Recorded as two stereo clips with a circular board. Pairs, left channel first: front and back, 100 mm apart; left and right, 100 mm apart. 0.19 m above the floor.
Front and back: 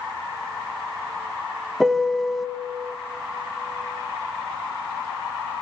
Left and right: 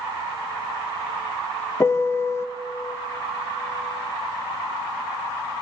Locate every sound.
1.8 s a piano: 90° left, 0.6 m